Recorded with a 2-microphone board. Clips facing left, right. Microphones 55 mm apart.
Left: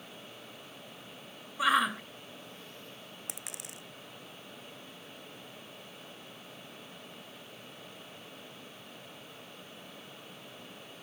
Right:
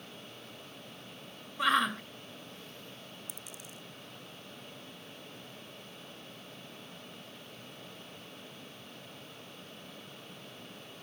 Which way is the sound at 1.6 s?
5° left (ahead or behind).